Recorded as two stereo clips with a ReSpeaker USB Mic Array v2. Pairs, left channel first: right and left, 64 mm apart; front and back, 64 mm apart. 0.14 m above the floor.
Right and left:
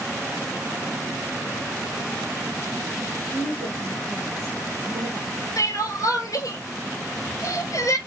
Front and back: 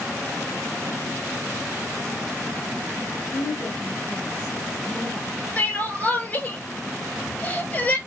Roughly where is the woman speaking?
Ahead left.